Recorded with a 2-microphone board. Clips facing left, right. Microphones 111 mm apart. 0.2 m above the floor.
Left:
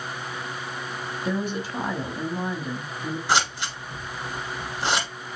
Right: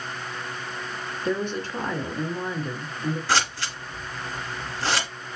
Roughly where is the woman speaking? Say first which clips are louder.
Right 1 dB; centre.